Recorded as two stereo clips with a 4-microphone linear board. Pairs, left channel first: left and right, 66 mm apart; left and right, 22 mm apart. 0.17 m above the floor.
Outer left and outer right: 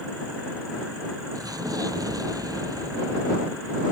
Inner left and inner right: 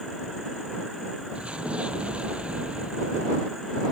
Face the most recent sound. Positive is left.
turn(degrees=-80)